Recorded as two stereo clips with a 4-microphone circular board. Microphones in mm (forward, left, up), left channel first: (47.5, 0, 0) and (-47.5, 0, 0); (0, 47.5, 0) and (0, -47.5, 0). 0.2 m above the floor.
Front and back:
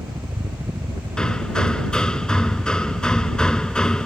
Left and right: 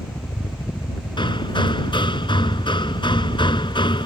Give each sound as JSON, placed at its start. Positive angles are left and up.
{"t": 0.0, "sound": "a helicopter", "azimuth_deg": 145}
{"t": 1.2, "sound": "hammering", "azimuth_deg": 80}